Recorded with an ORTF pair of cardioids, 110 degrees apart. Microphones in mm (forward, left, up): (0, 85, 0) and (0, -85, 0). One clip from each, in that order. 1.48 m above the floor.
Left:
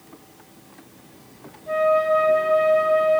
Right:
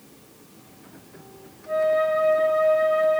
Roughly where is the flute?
Ahead.